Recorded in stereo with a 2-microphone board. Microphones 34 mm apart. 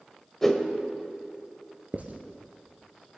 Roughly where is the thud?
I don't hear a thud.